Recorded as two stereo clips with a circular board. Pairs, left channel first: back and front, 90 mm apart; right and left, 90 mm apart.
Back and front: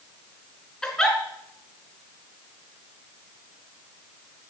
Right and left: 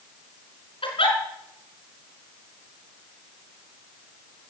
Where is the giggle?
100° right, 4 m.